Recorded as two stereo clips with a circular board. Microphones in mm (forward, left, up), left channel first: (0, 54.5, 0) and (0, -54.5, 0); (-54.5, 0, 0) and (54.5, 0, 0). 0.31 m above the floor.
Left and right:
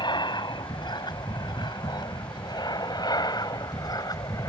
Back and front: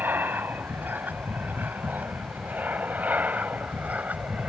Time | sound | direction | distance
0.0 | an aircraft | 65° left | ?